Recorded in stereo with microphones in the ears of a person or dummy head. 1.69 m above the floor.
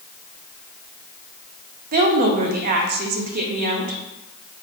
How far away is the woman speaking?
About 0.8 m.